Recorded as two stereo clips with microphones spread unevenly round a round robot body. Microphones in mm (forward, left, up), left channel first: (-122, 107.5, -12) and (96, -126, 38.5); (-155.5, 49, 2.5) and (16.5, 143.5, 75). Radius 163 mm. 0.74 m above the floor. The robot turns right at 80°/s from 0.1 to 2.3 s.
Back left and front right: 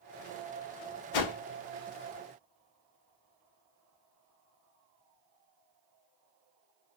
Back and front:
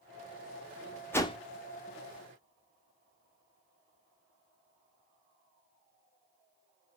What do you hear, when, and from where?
1.1 s a whoosh: 120° left, 0.6 m; by 1.4 s 140° left, 0.6 m